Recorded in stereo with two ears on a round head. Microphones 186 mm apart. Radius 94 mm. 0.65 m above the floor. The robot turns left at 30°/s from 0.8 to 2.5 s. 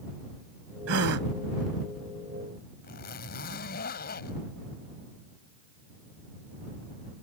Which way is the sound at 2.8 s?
50° left (ahead or behind).